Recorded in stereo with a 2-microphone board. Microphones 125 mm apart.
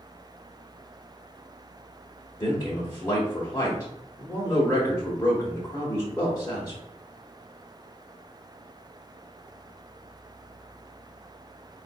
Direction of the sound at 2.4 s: 25° left (ahead or behind).